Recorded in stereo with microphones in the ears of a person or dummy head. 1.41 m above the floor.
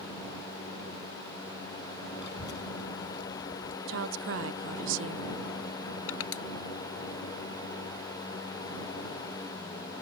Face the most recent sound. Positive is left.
turn(degrees=85)